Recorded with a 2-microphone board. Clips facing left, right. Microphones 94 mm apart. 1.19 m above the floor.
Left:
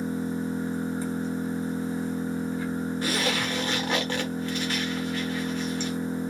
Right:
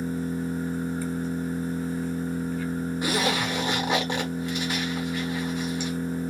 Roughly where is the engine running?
Left.